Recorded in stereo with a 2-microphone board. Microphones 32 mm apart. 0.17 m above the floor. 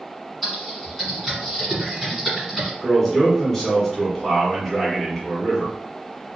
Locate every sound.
0.4 s typing on a keyboard: centre (ahead or behind), 1.5 m
2.8 s a man speaking: 10° left (ahead or behind), 1.5 m